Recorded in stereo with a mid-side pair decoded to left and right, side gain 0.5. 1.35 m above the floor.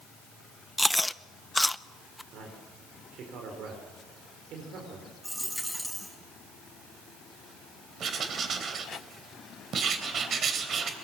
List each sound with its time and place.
0.8 s chewing: 10° left, 0.6 m
2.3 s a man speaking: 70° right, 4.5 m
5.2 s a dropped coin: 5° right, 5 m
8.0 s writing: 50° right, 3 m